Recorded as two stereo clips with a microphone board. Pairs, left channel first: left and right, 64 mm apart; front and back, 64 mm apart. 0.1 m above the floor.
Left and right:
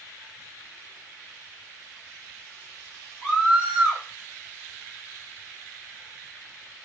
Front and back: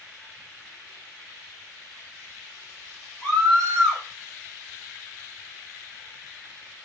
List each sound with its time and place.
3.2 s a scream: 35° right, 1.4 m